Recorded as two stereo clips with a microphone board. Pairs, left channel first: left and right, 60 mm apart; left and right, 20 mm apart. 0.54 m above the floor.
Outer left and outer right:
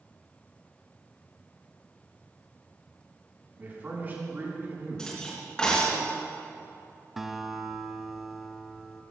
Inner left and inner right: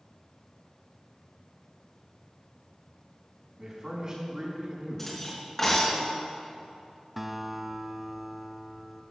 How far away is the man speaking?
About 5.5 m.